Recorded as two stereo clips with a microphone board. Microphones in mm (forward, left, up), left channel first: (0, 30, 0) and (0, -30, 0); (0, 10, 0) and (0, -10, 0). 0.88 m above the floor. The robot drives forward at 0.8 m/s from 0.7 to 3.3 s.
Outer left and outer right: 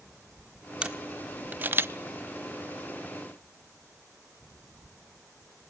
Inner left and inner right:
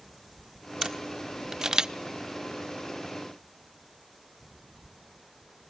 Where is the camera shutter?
20° right (ahead or behind), 1.4 m; by 1.9 s 45° right (ahead or behind), 0.6 m.